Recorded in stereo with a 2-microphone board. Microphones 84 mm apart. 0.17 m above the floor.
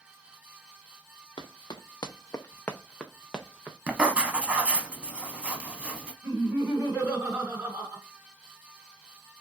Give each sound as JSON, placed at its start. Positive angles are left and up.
{"t": 1.4, "sound": "running footsteps", "side_deg": 75, "distance_m": 0.8}
{"t": 3.9, "sound": "writing", "side_deg": -15, "distance_m": 0.6}
{"t": 6.2, "sound": "laughter", "side_deg": -25, "distance_m": 1.7}